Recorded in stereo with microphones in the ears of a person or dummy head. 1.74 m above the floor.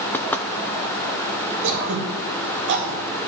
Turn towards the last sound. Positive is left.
turn(degrees=-65)  # may be behind; listen again after turning